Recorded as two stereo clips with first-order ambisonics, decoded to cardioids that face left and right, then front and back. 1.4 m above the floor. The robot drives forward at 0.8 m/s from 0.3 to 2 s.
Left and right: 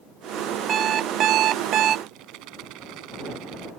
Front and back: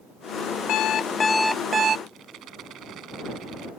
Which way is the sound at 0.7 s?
30° right.